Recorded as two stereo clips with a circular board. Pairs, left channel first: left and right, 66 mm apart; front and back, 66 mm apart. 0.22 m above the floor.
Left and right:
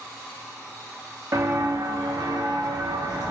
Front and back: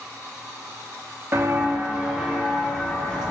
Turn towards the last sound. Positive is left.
turn(degrees=-85)